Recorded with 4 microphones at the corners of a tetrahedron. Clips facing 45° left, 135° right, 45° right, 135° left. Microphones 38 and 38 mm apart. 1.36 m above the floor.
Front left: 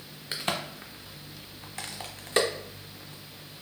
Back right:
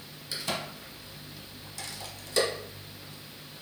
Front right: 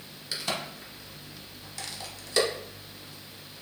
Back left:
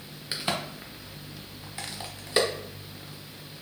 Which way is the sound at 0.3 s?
75° left.